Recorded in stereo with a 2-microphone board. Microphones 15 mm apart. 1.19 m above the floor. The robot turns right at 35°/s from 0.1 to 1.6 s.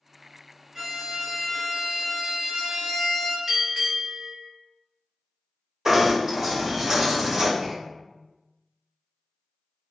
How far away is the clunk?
About 1.7 m.